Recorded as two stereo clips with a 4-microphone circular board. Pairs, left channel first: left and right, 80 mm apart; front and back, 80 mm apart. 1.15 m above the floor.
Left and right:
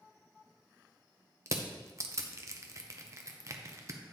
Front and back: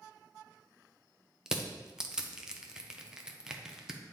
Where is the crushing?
105° right, 0.6 m.